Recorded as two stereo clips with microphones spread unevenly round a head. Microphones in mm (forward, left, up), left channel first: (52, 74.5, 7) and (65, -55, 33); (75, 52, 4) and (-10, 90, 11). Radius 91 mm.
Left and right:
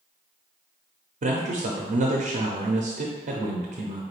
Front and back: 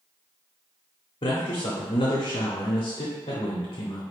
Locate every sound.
1.2 s a man speaking: 65° right, 0.7 m